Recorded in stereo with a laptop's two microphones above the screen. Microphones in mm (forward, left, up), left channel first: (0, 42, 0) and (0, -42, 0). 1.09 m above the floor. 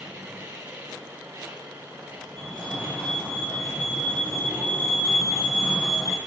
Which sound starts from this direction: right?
A machine running, at 0.0 s.